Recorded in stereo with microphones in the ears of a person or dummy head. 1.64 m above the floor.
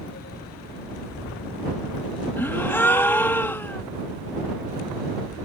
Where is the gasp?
10° left (ahead or behind).